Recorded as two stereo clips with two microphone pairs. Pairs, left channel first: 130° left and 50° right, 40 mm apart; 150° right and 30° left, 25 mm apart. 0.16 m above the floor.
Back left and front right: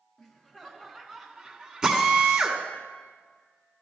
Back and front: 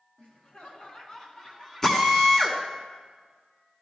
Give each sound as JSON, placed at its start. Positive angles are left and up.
{"t": 0.2, "sound": "laughter", "azimuth_deg": -140, "distance_m": 1.7}
{"t": 1.8, "sound": "a drill", "azimuth_deg": -105, "distance_m": 1.4}